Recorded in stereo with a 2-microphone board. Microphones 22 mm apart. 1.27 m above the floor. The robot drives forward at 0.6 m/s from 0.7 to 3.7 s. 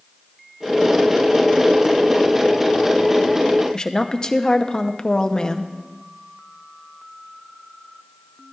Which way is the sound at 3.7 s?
35° left (ahead or behind).